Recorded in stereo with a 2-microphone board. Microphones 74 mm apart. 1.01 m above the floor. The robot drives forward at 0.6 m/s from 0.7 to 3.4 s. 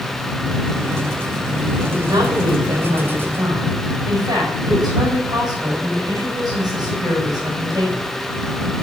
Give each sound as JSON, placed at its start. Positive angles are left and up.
{"t": 1.9, "sound": "a woman speaking", "side_deg": -75, "distance_m": 4.0}